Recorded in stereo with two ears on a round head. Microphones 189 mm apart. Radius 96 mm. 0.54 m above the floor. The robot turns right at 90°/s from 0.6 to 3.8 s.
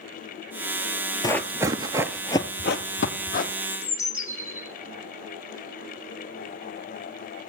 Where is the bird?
35° left (ahead or behind), 3.5 m; by 4.7 s 15° left (ahead or behind), 3.5 m.